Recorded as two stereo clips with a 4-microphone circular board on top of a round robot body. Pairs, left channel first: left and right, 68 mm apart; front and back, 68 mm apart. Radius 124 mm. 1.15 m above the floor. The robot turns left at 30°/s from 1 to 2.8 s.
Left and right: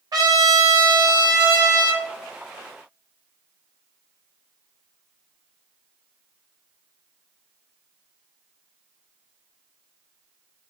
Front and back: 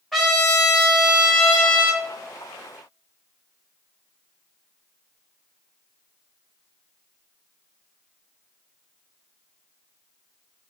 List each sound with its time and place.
0.1 s a trumpet: 90° right, 1.2 m; by 2.0 s 120° right, 1.2 m